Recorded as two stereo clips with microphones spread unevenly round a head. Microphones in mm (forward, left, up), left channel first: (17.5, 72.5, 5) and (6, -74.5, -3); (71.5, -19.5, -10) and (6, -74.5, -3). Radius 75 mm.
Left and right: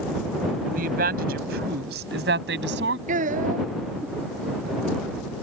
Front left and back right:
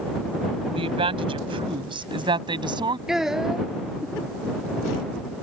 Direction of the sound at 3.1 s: 55° right.